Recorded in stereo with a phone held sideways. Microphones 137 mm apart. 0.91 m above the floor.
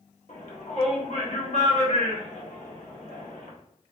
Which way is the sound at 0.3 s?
55° left (ahead or behind).